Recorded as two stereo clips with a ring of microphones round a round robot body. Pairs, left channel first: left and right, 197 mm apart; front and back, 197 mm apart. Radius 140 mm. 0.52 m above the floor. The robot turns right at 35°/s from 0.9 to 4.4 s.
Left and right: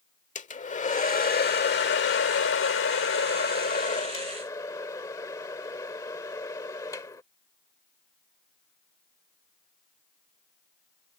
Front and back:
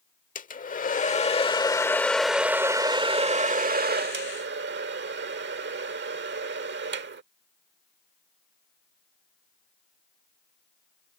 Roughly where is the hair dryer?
Ahead left.